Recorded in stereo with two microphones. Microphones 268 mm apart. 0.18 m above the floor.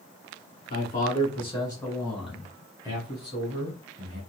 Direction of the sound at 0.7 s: 35° left (ahead or behind).